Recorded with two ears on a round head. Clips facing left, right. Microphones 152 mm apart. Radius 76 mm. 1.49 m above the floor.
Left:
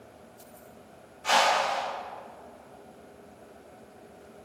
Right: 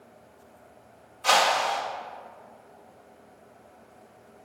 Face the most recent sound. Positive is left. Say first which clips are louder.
# right 1 dB
turn(degrees=-75)  # may be behind; listen again after turning